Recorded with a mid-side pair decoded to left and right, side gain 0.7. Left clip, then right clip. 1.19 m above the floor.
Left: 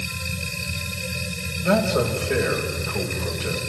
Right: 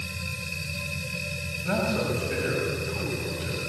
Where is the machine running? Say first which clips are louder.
Left 4 dB; 40° left, 5.5 m.